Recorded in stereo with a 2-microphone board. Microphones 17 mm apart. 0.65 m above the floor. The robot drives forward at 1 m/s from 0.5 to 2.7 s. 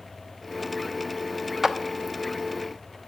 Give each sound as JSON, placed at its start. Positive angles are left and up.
{"t": 1.6, "sound": "a clap", "side_deg": -20, "distance_m": 0.8}